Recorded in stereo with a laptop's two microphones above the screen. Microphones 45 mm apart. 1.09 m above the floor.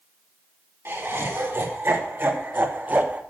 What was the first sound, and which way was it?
Laughter, 60° right (ahead or behind).